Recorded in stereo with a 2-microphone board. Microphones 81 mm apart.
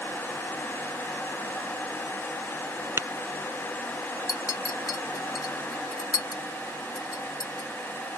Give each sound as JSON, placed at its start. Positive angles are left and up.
{"t": 3.0, "sound": "tapping", "side_deg": -35}
{"t": 4.3, "sound": "a clink", "side_deg": 50}